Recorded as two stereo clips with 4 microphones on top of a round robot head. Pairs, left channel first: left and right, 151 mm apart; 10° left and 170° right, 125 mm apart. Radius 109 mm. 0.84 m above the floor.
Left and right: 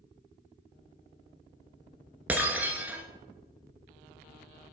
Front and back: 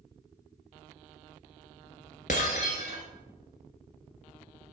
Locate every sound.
2.3 s breaking glass: 15° right, 1.0 m